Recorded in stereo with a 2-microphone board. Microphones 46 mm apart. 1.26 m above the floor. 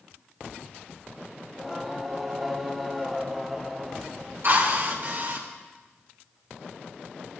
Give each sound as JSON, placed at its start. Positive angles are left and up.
{"t": 1.5, "sound": "singing", "side_deg": -5, "distance_m": 0.9}
{"t": 4.4, "sound": "a drill", "side_deg": -60, "distance_m": 4.0}